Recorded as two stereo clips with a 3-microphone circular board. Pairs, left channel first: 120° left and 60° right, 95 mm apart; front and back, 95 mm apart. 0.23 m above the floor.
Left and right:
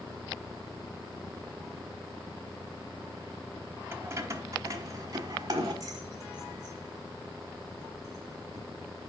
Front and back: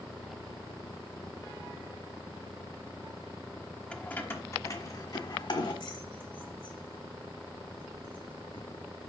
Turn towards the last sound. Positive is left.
turn(degrees=-15)